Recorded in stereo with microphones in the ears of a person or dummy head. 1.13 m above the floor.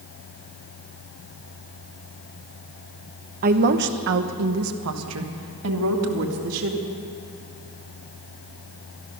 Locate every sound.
3.4 s a woman speaking: 40° right (ahead or behind), 0.8 m; by 6.8 s 70° right (ahead or behind), 2 m